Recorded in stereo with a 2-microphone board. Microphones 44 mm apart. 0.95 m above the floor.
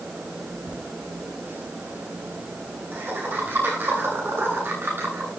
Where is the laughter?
40° right (ahead or behind), 9 m; by 5.3 s 60° right (ahead or behind), 10 m.